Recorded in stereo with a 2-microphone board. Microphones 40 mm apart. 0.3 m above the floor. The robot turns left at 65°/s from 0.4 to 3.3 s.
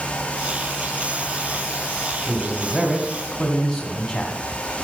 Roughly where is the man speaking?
Behind right.